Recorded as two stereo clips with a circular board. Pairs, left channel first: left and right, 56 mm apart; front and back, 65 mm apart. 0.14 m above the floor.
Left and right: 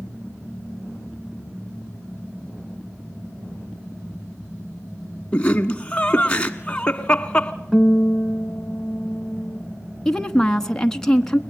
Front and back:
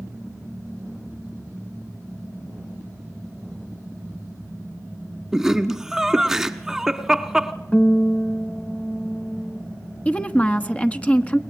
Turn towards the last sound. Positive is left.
turn(degrees=25)